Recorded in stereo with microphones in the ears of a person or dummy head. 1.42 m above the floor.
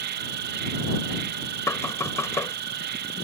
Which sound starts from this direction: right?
An insect, at 0.0 s.